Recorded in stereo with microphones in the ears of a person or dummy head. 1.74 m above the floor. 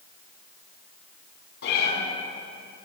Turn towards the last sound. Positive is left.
turn(degrees=60)  # may be behind; listen again after turning